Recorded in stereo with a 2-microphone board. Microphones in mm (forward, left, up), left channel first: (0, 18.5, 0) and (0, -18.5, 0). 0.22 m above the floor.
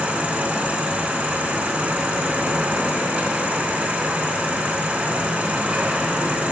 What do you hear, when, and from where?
0.0 s an insect: 35° right (ahead or behind), 0.8 m